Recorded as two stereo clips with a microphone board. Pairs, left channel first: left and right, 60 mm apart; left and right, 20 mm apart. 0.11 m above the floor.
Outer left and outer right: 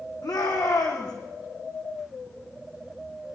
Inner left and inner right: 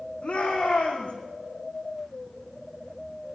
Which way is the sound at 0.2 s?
80° left.